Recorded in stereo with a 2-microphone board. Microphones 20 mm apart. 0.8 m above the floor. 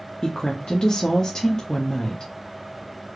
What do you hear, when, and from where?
0.2 s a woman speaking: 40° left (ahead or behind), 0.6 m